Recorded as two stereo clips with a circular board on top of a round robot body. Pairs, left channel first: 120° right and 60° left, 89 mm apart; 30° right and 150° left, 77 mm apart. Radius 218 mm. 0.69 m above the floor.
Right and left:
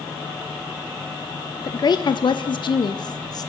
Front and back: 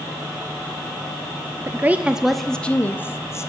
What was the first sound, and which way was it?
A woman speaking, 160° right.